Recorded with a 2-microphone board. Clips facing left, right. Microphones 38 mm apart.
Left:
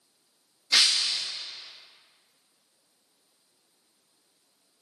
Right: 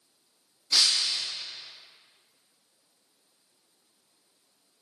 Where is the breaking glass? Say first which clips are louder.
Left 2 dB; 55° left (ahead or behind), 2 m.